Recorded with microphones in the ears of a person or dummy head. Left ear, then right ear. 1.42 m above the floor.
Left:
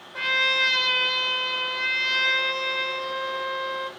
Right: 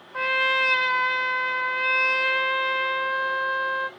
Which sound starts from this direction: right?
A trumpet, at 0.1 s.